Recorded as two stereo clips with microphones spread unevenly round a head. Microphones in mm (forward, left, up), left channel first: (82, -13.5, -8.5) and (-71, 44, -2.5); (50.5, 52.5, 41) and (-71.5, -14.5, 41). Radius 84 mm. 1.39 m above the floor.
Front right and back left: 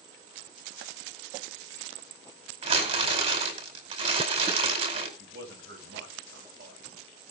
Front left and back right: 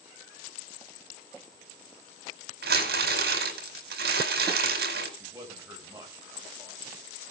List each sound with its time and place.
2.6 s crumpling: 145° right, 4.5 m
5.2 s a man speaking: 135° left, 7 m